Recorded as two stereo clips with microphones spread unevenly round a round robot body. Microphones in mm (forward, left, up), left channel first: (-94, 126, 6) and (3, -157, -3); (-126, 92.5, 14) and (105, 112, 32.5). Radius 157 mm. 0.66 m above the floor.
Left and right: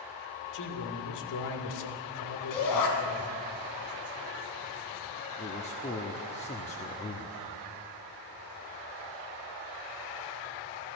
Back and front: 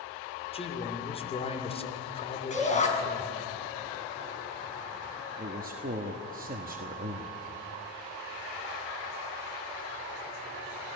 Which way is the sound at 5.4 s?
45° left.